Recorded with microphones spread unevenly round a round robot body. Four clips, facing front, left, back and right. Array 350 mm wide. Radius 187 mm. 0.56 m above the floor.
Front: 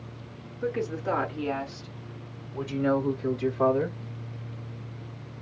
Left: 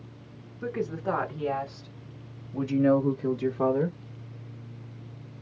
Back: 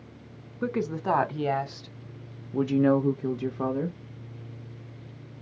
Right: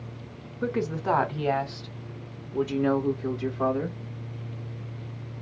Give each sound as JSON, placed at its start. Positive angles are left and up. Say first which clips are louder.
{"t": 0.6, "sound": "a woman speaking", "louder": "right 3 dB, back 1 dB", "azimuth_deg": -135, "distance_m": 2.0}